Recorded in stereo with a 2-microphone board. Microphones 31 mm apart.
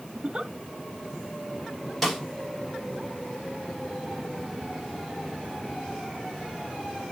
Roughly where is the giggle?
Right.